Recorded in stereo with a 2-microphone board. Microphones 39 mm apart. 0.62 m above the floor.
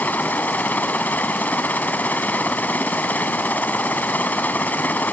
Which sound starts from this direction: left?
A helicopter, at 0.0 s.